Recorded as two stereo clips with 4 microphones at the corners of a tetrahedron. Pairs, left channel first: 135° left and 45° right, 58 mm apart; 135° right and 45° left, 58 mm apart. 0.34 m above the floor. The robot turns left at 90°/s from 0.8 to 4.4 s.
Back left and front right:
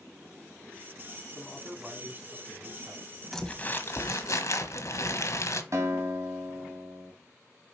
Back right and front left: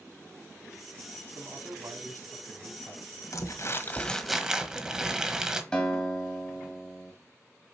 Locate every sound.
1.3 s a man speaking: 90° left, 2.5 m; by 3.2 s 85° right, 2.5 m
3.3 s crumpling: 140° right, 1.2 m; by 5.6 s 125° left, 1.2 m
5.7 s a guitar: 65° right, 2.5 m